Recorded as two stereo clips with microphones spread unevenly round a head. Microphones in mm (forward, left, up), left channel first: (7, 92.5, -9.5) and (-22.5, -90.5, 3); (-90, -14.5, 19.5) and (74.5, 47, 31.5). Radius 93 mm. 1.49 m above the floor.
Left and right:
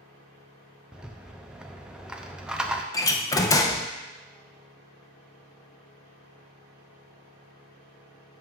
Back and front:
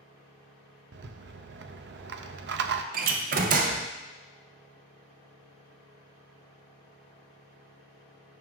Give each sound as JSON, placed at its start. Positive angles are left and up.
{"t": 0.9, "sound": "a rattle", "azimuth_deg": -15, "distance_m": 0.5}
{"t": 2.9, "sound": "a door slam", "azimuth_deg": 10, "distance_m": 0.6}